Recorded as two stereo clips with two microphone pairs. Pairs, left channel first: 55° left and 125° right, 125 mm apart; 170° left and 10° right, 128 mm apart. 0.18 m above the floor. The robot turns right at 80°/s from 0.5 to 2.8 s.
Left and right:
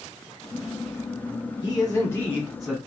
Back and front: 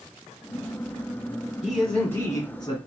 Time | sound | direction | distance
1.6 | a man speaking | 70° left | 1.4 m